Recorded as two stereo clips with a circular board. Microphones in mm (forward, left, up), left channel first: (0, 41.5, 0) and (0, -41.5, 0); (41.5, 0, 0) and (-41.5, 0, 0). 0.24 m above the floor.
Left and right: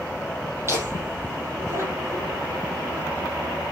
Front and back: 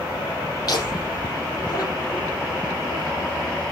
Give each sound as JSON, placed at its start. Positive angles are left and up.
{"t": 0.7, "sound": "laughter", "azimuth_deg": -35, "distance_m": 7.0}